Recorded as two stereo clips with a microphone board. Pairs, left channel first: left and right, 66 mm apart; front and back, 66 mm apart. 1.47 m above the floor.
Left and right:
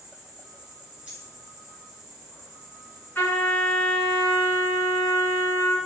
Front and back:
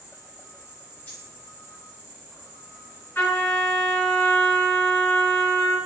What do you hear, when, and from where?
0.0 s an insect: 150° right, 1.1 m
1.1 s a dropped coin: 30° right, 1.4 m
3.1 s a trumpet: 35° left, 1.8 m